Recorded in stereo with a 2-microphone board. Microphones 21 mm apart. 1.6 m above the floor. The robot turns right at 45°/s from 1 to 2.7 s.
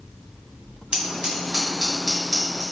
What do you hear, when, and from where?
0.9 s scissors: 60° right (ahead or behind), 1.5 m; by 2.6 s 10° left (ahead or behind), 1.5 m